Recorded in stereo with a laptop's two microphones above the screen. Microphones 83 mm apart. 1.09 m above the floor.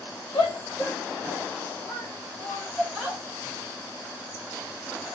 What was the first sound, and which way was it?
A shout, 75° left (ahead or behind).